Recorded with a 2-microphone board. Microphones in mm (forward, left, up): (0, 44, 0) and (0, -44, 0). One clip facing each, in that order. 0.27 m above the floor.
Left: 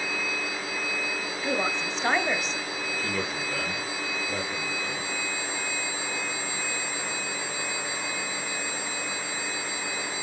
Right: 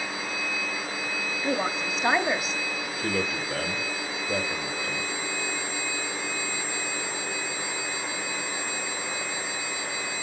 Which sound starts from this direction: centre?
A woman speaking, at 1.4 s.